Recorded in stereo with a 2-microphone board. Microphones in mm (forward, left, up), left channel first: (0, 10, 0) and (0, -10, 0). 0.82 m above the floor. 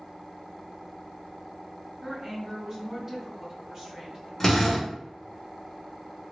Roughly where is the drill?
Centre.